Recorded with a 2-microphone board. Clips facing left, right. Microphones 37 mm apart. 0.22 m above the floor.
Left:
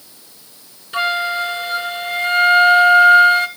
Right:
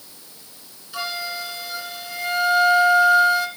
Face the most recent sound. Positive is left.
turn(degrees=40)  # may be behind; listen again after turning